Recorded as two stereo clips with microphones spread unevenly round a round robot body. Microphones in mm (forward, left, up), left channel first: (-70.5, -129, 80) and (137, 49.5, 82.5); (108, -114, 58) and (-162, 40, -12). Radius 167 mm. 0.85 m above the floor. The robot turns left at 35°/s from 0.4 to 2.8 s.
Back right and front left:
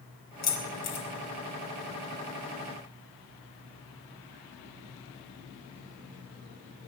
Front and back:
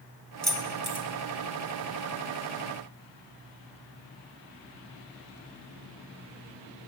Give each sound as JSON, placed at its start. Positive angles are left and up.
{"t": 0.4, "sound": "keys jangling", "azimuth_deg": -120, "distance_m": 3.0}